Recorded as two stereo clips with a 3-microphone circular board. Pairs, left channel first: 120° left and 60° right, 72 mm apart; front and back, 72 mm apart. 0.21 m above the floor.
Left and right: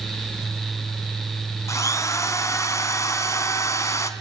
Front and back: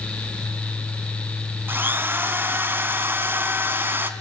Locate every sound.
1.7 s a drill: 130° left, 1.8 m